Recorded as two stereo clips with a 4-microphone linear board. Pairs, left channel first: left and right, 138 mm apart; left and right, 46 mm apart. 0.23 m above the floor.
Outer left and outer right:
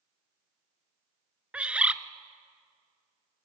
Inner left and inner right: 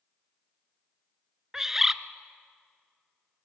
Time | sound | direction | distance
1.5 | a bird | 10° right (ahead or behind) | 0.5 m